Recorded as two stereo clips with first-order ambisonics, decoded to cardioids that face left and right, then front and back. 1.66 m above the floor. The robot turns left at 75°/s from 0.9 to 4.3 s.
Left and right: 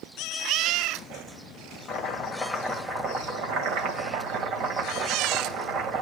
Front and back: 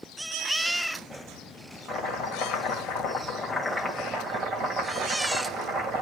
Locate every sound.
1.9 s chopping: 50° left, 2 m; by 6.0 s 130° right, 2 m